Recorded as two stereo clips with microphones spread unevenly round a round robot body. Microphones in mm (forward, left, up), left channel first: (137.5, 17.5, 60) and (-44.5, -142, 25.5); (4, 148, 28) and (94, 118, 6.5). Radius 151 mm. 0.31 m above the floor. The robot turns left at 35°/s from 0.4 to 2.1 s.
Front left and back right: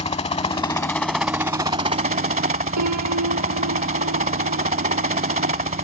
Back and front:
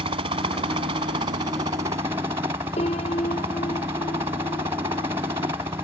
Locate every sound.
0.0 s a helicopter: 25° right; by 5.8 s 85° right
2.8 s a piano: 150° right